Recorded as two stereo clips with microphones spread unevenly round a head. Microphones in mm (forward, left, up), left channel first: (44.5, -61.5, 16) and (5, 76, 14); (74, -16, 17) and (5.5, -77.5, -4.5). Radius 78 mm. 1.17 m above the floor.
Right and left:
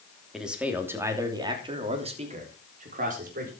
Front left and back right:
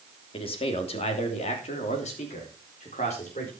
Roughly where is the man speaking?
Ahead.